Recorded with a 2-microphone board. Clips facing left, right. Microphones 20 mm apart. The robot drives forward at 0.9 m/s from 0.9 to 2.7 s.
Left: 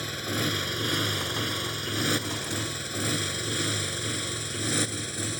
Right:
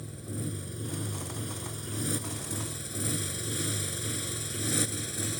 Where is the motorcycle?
65° left (ahead or behind); by 5.4 s 15° left (ahead or behind).